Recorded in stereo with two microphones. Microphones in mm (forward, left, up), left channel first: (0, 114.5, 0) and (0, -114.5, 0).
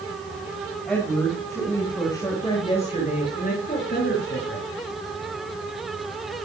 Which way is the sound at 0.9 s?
Centre (ahead or behind).